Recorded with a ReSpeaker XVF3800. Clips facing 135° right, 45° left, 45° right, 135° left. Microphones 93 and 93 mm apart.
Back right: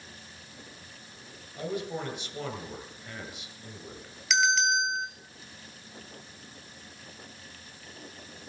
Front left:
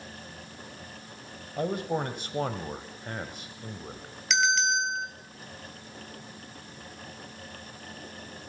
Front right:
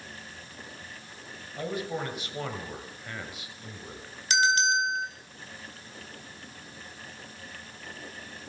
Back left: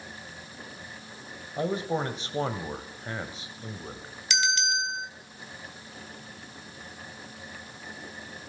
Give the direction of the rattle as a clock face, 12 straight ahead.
I don't hear a rattle.